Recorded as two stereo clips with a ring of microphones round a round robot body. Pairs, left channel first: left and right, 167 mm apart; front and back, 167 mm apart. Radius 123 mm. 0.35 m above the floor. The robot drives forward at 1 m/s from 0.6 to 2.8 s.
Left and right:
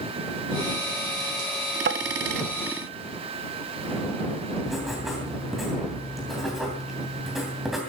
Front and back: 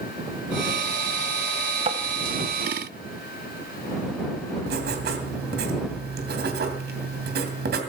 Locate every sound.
1.9 s tapping: 120° right, 0.9 m; by 2.0 s 125° right, 1.0 m
4.7 s writing: straight behind, 2.5 m